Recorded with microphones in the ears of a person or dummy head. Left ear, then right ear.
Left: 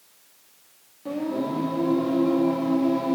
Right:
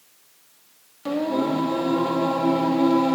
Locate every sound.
1.1 s singing: 50° right (ahead or behind), 1.7 m